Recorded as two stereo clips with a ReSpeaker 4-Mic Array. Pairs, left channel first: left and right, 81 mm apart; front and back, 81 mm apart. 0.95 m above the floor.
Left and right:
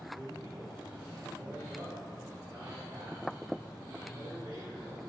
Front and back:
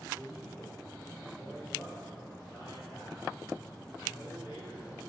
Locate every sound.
0.1 s a man speaking: 40° right, 6.5 m